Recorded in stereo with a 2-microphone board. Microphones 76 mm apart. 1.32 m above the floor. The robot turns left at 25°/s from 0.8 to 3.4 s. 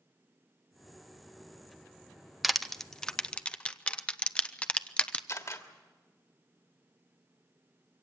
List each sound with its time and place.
2.4 s crushing: centre (ahead or behind), 0.5 m; by 5.2 s 15° left (ahead or behind), 0.5 m
5.3 s a camera shutter: 45° left (ahead or behind), 1.5 m